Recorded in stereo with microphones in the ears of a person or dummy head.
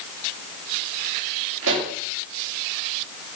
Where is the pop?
70° right (ahead or behind), 2.5 m.